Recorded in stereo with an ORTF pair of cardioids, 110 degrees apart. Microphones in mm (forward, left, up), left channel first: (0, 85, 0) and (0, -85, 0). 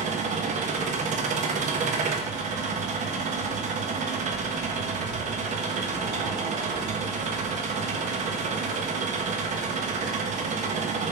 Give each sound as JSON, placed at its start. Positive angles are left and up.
{"t": 0.0, "sound": "an engine running", "azimuth_deg": -45, "distance_m": 1.0}